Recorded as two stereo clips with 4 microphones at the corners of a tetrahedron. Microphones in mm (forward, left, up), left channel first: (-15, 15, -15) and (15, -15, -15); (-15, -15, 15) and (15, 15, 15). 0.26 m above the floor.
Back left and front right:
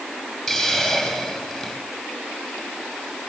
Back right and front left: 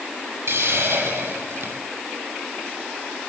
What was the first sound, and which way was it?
A hiss, 45° left.